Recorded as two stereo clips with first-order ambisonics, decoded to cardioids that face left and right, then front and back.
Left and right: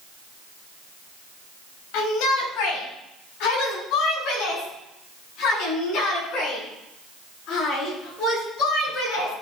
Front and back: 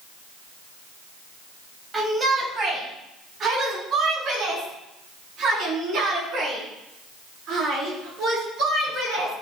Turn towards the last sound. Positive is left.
turn(degrees=135)